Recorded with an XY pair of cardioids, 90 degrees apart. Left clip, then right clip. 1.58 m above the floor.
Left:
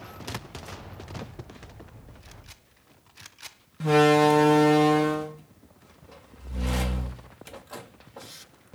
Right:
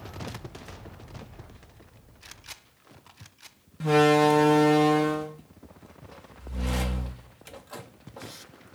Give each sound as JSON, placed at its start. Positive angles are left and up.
{"t": 3.8, "sound": "a door slam", "azimuth_deg": 10}